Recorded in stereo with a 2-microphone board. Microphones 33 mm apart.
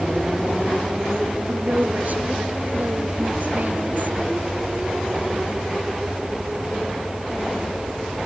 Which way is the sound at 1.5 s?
55° right (ahead or behind).